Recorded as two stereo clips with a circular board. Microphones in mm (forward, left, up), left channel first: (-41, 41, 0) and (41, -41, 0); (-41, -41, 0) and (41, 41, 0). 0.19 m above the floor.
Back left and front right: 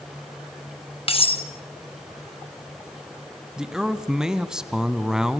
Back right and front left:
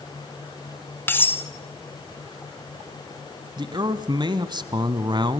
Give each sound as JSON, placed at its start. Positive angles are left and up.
{"t": 1.1, "sound": "cutlery clinking", "azimuth_deg": 155, "distance_m": 1.4}
{"t": 3.6, "sound": "a man speaking", "azimuth_deg": 35, "distance_m": 1.3}